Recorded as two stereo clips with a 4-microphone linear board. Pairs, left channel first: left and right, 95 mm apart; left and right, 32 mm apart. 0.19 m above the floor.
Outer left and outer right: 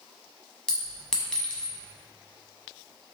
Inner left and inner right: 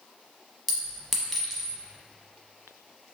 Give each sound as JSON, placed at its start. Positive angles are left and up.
{"t": 0.7, "sound": "a clink", "side_deg": 10, "distance_m": 0.8}